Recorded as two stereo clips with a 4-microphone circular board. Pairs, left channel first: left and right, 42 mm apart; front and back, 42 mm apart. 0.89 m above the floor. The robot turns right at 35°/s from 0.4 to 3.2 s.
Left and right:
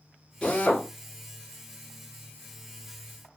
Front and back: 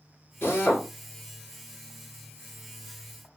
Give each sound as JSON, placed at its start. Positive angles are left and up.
{"t": 0.4, "sound": "a drill", "azimuth_deg": 30, "distance_m": 2.0}